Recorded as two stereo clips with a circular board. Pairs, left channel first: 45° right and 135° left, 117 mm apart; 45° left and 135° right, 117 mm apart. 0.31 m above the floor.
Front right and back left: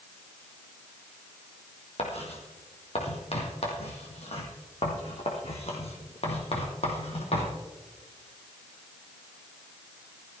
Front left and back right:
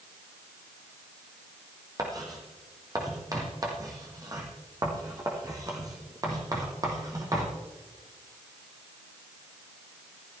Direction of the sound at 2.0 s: 75° right.